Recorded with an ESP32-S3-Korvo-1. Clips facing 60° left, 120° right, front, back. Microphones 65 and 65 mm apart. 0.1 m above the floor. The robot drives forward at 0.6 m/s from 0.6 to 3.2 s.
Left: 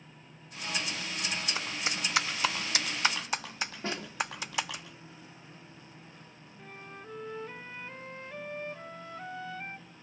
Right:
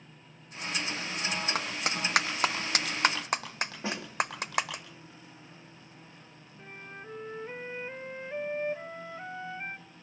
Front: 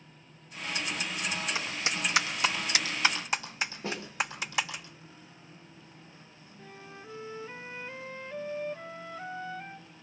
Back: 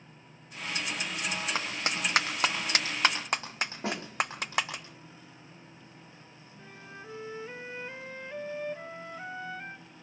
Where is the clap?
140° right, 4 m; by 4.8 s 150° right, 4.5 m.